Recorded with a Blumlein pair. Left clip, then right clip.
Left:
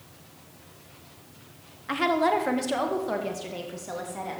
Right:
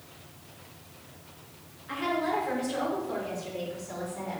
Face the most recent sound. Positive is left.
turn(degrees=45)